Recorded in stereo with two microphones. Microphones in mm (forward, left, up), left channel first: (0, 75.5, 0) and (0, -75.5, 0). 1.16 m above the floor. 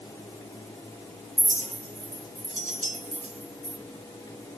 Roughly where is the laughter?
No laughter in this recording.